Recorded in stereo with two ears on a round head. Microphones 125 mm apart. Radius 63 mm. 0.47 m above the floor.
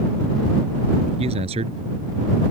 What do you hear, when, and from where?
1.2 s a man speaking: 45° right (ahead or behind)